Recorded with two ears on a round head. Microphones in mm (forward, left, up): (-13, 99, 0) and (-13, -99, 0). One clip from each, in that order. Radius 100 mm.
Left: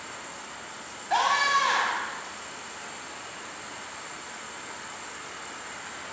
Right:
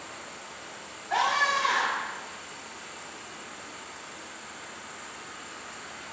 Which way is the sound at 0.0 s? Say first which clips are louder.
Left 2 dB; 45° left (ahead or behind).